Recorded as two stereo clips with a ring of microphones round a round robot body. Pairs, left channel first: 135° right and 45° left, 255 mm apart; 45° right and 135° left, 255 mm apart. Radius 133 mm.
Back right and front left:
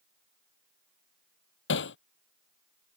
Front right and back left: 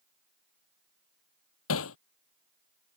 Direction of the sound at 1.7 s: 85° right.